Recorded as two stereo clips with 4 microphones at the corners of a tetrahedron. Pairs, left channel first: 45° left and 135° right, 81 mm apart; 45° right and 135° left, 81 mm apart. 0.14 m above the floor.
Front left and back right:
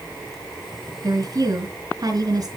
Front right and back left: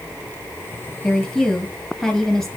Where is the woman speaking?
130° right, 2.5 m.